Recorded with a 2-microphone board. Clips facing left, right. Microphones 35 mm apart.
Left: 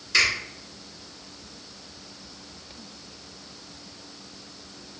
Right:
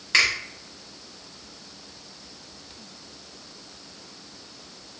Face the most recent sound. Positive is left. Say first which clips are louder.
# right 1 dB
turn(degrees=-45)  # may be behind; listen again after turning